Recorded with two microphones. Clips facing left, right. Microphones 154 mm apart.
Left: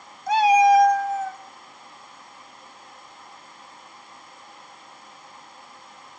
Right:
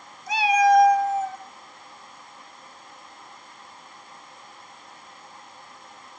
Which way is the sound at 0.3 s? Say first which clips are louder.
Left 3 dB; 55° left (ahead or behind).